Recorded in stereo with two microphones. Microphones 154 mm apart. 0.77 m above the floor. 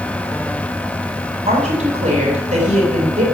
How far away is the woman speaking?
About 5 m.